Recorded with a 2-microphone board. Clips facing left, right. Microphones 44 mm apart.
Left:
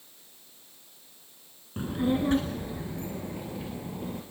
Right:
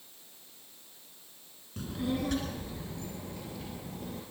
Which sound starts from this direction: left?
A child speaking, at 1.8 s.